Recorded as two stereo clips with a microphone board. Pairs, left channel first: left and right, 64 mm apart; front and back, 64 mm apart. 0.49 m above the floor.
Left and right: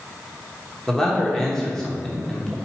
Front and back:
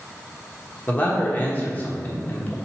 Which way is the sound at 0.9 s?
20° left.